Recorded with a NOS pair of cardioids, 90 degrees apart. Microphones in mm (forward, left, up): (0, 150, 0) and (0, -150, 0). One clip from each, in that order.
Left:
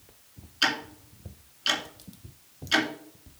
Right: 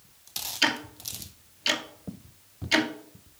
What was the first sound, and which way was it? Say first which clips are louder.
Ticking: even; 15° right.